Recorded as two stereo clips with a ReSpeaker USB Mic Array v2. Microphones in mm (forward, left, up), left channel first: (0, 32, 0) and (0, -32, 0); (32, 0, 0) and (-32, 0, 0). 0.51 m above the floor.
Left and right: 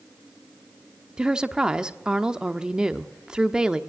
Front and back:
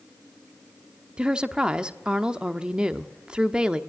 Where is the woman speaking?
140° right, 1.1 m.